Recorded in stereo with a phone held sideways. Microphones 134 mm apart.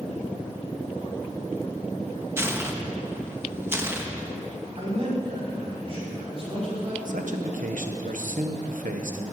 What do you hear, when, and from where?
2.4 s tearing paper: 15° right (ahead or behind), 1.1 m
4.8 s a man speaking: 45° right (ahead or behind), 4.5 m
7.0 s a man speaking: 75° right (ahead or behind), 1.1 m